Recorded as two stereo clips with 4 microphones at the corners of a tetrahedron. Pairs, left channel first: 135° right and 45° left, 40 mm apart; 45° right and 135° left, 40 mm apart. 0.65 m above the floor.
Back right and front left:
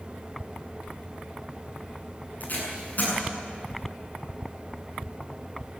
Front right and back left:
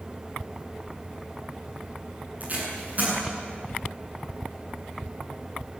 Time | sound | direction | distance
2.4 | tape being pulled | straight behind | 8.5 m